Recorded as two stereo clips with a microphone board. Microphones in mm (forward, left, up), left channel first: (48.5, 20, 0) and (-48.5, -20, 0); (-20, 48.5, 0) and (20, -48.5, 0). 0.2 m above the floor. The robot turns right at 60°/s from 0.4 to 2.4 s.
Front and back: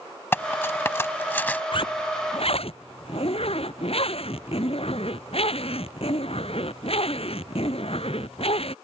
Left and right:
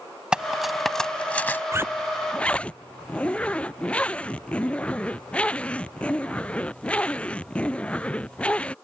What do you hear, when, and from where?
0.3 s cutlery clinking: straight ahead; by 1.6 s 75° left
1.7 s a zipper: 5° right; by 8.8 s 35° left